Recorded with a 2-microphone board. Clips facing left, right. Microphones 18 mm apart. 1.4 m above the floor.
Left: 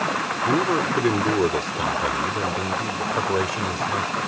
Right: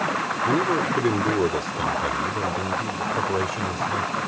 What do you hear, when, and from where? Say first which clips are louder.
0.5 s a man speaking: left 1 dB; 5° left (ahead or behind); by 4.2 s 15° left (ahead or behind)